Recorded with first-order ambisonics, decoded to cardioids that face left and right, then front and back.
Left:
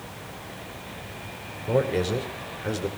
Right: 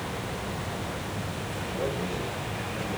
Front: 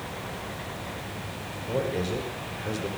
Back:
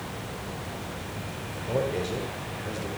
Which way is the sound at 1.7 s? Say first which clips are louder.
Left 9 dB, back 1 dB; 90° left.